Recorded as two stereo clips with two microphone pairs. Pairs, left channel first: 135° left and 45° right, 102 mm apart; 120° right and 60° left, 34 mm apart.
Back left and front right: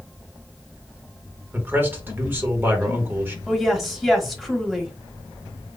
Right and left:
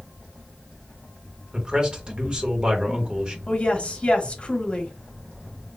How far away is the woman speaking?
About 1.0 m.